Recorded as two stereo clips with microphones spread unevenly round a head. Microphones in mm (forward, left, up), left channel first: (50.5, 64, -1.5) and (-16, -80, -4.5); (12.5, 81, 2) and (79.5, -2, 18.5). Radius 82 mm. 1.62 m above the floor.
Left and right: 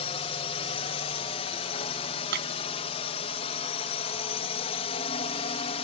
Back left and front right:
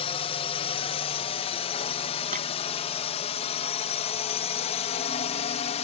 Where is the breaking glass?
95° right.